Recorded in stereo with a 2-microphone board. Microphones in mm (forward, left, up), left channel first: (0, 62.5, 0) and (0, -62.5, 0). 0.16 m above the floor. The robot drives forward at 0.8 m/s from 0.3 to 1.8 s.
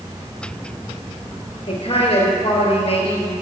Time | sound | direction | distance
1.7 | a man speaking | 50° left (ahead or behind) | 3 m